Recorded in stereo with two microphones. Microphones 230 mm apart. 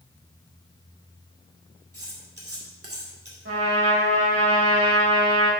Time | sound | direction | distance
1.9 | cutlery clinking | 80° right | 2 m
3.5 | a trumpet | 75° right (ahead or behind) | 3 m